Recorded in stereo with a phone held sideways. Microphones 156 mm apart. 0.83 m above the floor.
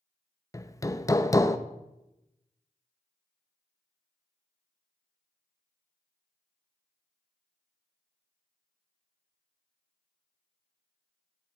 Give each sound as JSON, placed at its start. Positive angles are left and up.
{"t": 0.5, "sound": "hammering", "side_deg": 20, "distance_m": 0.6}